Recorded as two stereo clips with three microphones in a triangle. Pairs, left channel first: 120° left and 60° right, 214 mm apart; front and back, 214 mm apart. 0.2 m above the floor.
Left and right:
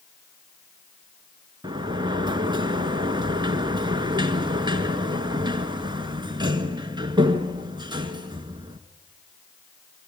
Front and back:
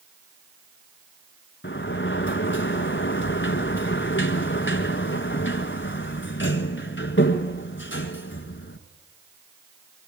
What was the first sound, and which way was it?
A sliding door, 5° left.